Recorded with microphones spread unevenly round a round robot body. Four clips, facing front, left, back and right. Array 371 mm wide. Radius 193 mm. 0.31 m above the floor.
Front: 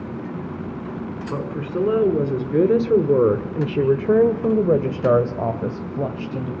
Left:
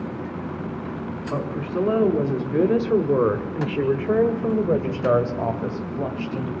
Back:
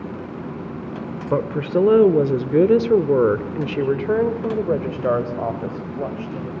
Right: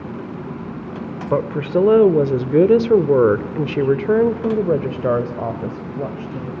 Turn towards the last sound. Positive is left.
turn(degrees=-10)